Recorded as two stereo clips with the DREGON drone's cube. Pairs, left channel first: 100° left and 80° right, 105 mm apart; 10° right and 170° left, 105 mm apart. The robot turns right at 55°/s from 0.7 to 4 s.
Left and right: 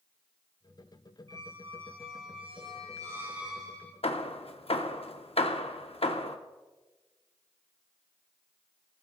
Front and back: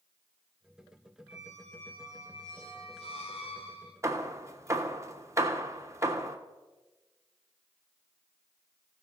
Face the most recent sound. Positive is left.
turn(degrees=110)